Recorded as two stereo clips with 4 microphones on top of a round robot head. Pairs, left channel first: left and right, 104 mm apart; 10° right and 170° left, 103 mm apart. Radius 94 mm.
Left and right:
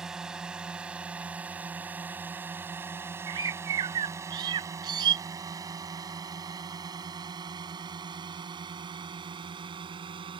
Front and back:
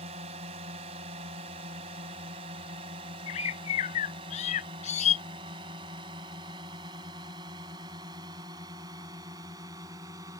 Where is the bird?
35° right.